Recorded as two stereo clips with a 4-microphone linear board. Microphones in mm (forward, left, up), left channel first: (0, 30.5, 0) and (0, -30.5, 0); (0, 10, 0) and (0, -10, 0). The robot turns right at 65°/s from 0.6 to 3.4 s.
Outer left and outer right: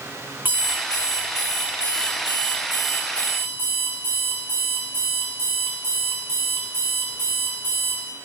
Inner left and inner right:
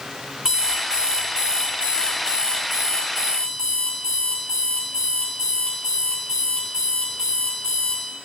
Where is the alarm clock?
145° right, 3 m; by 8.0 s 35° left, 3 m.